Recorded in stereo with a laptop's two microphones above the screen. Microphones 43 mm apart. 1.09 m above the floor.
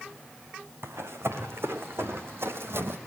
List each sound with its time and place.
0.8 s running footsteps: 75° right (ahead or behind), 4.5 m; by 3.0 s 65° right (ahead or behind), 2.5 m